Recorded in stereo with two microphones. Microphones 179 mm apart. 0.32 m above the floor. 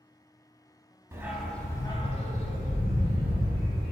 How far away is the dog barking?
About 0.6 m.